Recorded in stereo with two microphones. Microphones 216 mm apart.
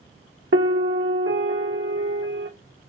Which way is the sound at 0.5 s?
70° right (ahead or behind).